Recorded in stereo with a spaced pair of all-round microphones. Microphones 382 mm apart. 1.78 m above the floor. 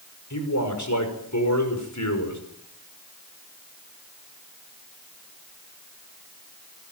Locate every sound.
0.3 s a man speaking: 50° left (ahead or behind), 5.5 m